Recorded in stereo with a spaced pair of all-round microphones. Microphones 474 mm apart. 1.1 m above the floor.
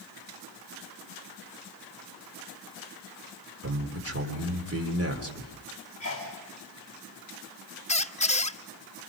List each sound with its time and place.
3.6 s a man speaking: 30° right (ahead or behind), 3.5 m
6.0 s a sneeze: 40° left (ahead or behind), 3 m
7.9 s a squeak: 15° left (ahead or behind), 0.6 m